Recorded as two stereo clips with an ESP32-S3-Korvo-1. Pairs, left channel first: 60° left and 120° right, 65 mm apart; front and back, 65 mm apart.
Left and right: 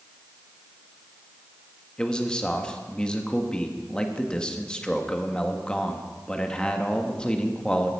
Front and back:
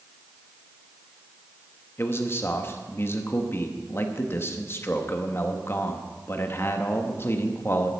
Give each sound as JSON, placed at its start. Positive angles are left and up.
{"t": 2.0, "sound": "a man speaking", "azimuth_deg": -5, "distance_m": 1.3}